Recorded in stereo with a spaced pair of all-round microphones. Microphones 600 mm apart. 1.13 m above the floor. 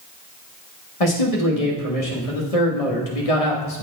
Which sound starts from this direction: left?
A man speaking, at 1.0 s.